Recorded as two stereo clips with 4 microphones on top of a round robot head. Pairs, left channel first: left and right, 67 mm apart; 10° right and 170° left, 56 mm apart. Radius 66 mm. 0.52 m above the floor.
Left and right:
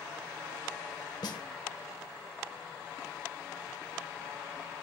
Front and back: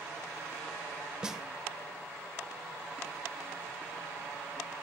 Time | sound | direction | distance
1.2 | a snare drum | 95° left | 1.6 m